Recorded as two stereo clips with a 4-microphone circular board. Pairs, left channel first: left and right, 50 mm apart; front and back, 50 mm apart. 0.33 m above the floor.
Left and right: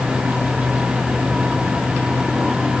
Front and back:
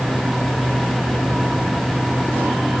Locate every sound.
Only background noise.